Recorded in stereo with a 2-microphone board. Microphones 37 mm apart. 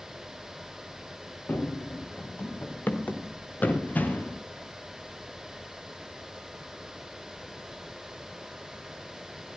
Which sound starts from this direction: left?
Running footsteps, at 1.5 s.